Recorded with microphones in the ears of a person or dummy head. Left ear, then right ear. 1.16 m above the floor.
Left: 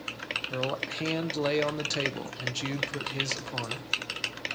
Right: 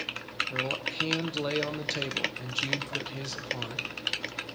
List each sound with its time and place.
0.5 s a man speaking: 15° left (ahead or behind), 0.7 m